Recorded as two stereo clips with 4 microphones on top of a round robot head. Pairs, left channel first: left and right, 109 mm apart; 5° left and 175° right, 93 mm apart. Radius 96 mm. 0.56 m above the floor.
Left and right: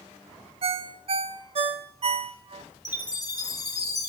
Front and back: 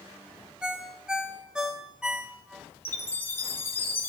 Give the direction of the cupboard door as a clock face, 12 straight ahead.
No cupboard door in this recording.